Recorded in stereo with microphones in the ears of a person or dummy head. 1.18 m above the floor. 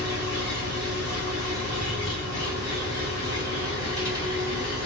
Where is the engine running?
30° left (ahead or behind), 1.4 m.